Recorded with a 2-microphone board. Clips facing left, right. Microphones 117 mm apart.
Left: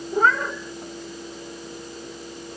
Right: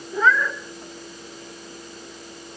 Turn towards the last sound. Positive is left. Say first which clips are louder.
# even
turn(degrees=45)  # may be behind; listen again after turning